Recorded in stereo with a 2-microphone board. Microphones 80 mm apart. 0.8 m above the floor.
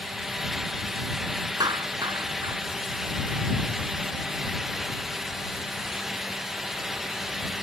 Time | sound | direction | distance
1.6 | a clap | 55° right (ahead or behind) | ?